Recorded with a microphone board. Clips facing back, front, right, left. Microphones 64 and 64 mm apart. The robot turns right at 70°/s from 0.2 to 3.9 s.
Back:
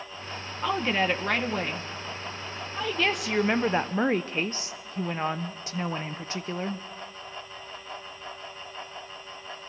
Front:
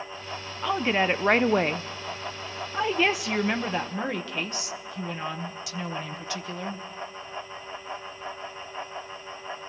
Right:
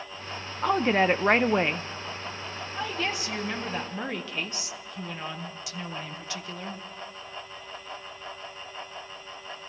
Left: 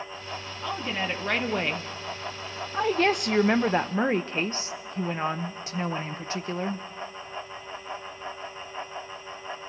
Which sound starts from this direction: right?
A woman speaking, at 0.6 s.